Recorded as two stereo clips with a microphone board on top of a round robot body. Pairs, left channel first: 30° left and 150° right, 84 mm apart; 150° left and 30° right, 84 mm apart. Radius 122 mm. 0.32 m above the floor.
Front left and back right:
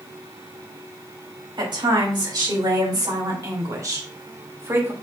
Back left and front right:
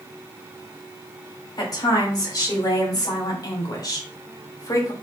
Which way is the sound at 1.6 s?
170° right.